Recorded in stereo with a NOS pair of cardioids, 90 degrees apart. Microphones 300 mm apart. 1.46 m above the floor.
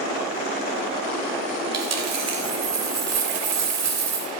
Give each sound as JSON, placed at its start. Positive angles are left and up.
{"t": 1.7, "sound": "a dropped coin", "azimuth_deg": -60, "distance_m": 3.0}